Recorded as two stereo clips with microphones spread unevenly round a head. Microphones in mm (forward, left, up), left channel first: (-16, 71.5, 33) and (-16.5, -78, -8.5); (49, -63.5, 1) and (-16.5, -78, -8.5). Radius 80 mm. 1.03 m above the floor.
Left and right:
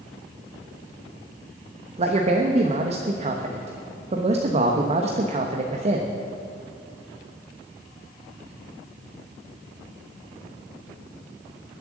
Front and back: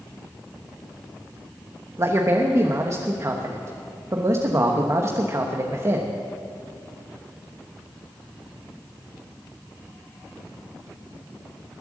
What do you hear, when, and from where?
2.0 s a man speaking: 125° right, 1.2 m